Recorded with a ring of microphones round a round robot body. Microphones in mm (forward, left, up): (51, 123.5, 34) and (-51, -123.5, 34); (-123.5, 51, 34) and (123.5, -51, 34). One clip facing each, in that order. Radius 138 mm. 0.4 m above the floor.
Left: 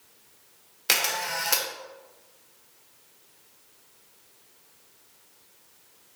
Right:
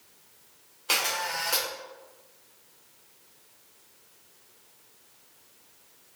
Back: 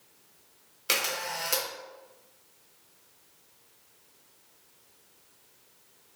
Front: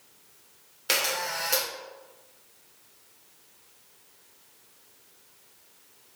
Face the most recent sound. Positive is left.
turn(degrees=85)